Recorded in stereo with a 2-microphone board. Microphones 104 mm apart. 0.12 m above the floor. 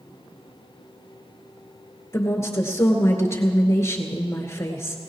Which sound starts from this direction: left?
A woman speaking, at 2.1 s.